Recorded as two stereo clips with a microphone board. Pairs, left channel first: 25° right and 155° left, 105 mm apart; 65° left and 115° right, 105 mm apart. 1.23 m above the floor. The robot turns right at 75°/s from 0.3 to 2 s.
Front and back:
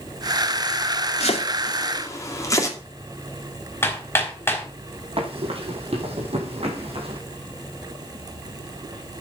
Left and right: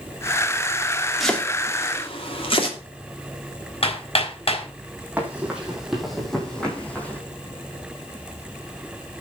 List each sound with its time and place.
1.2 s chopping: 25° right, 2.5 m; by 2.8 s 35° left, 2.5 m
3.8 s hammering: 45° left, 3.5 m
5.2 s running footsteps: 175° left, 3.5 m; by 7.2 s 140° left, 3.5 m